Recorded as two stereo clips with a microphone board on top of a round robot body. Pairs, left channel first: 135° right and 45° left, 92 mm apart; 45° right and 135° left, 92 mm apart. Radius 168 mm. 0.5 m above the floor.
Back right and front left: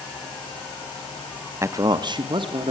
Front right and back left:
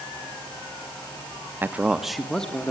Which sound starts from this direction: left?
A man speaking, at 1.6 s.